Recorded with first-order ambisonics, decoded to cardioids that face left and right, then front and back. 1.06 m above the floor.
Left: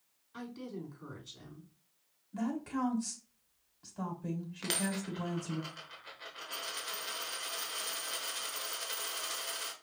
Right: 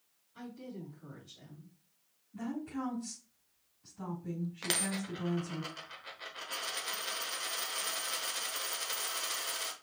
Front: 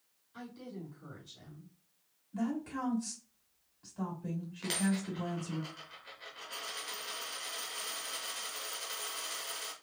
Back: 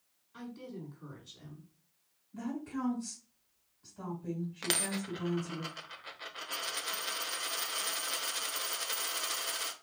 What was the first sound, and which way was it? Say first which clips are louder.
A woman speaking: left 3 dB, back 1 dB; 105° left.